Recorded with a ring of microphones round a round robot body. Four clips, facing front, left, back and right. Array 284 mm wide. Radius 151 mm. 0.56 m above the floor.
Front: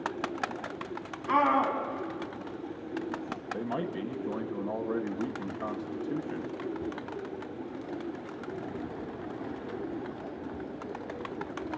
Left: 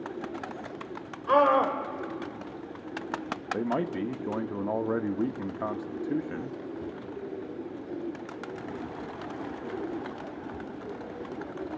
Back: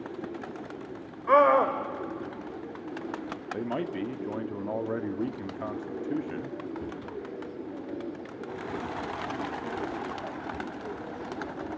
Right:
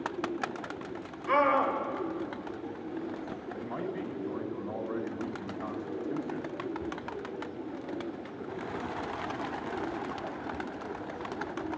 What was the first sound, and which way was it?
A scream, 160° left.